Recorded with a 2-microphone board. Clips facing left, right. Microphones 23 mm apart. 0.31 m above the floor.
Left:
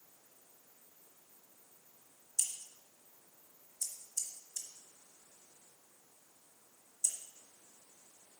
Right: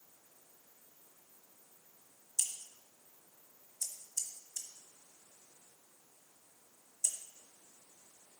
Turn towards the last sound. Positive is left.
turn(degrees=-15)  # may be behind; listen again after turning